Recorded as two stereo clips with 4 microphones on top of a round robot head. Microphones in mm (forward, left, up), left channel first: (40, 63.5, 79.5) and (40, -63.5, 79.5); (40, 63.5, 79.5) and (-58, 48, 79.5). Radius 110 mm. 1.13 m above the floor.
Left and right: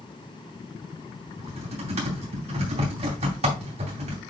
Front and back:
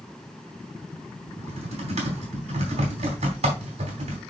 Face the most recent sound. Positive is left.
turn(degrees=-140)